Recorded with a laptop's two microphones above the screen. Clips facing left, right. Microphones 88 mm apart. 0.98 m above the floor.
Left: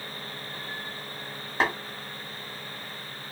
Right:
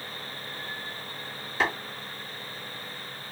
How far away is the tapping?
About 1.6 m.